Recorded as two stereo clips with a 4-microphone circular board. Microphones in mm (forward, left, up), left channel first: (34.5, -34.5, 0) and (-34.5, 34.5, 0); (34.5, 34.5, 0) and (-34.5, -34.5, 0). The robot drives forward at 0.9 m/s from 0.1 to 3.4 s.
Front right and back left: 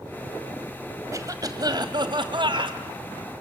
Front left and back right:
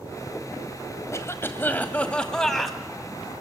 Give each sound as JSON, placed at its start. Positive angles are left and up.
{"t": 1.1, "sound": "a cough", "azimuth_deg": 95, "distance_m": 2.0}